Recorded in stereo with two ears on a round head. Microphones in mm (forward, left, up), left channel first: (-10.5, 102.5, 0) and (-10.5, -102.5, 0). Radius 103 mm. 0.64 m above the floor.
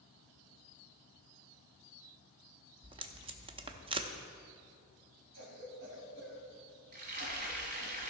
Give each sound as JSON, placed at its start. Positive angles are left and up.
{"t": 2.8, "sound": "tape being pulled", "side_deg": -25, "distance_m": 0.6}
{"t": 5.3, "sound": "a cough", "side_deg": -60, "distance_m": 3.0}
{"t": 6.9, "sound": "frying", "side_deg": -45, "distance_m": 1.7}